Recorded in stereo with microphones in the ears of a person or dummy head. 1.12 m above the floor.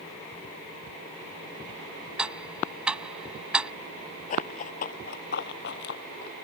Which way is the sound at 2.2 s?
Centre (ahead or behind).